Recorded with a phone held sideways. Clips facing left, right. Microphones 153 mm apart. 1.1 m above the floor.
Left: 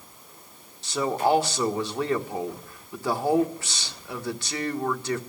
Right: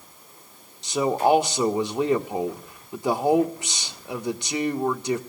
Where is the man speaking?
20° right (ahead or behind), 1.1 m.